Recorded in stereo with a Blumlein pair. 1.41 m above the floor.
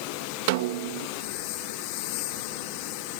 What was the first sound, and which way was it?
A snare drum, 50° right.